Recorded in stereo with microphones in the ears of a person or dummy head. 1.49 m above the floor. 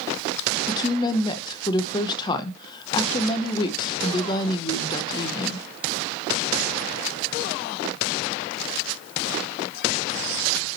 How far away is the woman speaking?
About 0.9 m.